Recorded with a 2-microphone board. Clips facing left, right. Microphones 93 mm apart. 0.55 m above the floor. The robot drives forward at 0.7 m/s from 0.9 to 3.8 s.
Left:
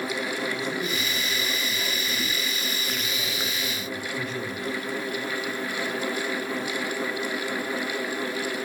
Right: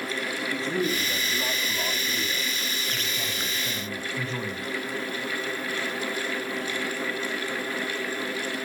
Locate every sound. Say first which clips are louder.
0.5 s a man speaking: right 2 dB; 40° right (ahead or behind), 4.5 m; by 4.7 s 25° right (ahead or behind), 6.5 m